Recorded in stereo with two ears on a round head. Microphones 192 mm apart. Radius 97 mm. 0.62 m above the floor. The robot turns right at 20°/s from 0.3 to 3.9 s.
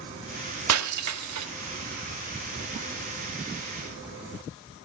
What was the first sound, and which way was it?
Breaking glass, 75° right (ahead or behind).